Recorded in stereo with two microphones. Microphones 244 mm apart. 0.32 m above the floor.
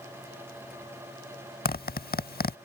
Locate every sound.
1.6 s a zipper: 40° left (ahead or behind)